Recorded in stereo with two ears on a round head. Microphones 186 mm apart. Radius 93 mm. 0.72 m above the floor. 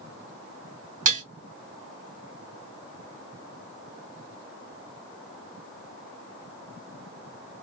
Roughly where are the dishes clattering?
Right.